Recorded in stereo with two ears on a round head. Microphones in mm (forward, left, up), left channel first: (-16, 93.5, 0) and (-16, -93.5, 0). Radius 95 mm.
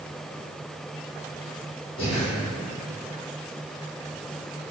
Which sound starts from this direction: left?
Breathing, at 2.0 s.